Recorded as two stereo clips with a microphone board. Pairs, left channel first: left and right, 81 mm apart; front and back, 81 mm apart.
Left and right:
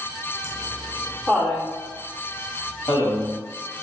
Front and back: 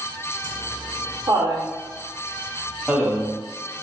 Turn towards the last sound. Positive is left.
turn(degrees=90)